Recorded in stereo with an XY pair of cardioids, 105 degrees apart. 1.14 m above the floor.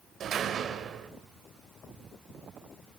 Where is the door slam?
55° right, 3 m.